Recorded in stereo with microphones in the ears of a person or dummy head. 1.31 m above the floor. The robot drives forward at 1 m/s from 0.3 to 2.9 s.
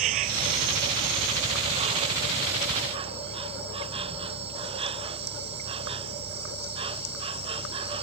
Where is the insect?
50° right (ahead or behind); by 8.0 s 30° right (ahead or behind).